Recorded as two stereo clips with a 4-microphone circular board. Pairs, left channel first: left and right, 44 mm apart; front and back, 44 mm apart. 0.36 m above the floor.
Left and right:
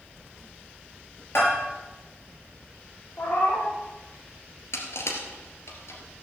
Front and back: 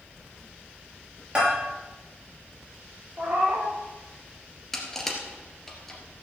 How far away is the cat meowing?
About 3 m.